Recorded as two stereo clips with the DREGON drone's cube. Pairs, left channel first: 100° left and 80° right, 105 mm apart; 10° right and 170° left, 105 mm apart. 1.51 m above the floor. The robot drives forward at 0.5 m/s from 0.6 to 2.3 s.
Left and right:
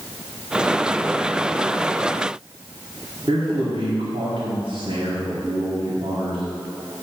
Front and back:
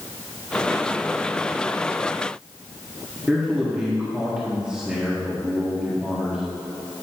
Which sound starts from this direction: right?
A man speaking, at 3.3 s.